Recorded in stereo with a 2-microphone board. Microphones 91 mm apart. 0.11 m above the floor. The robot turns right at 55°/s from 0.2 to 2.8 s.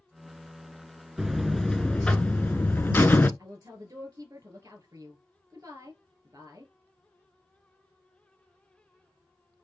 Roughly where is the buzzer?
Centre.